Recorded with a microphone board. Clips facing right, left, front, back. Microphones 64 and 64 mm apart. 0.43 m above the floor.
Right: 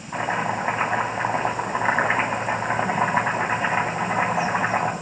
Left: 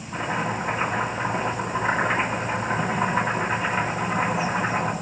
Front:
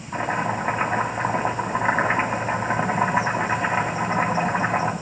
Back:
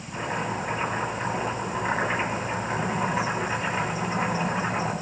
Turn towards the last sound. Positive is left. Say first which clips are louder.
# right 2 dB, front 5 dB
turn(degrees=-45)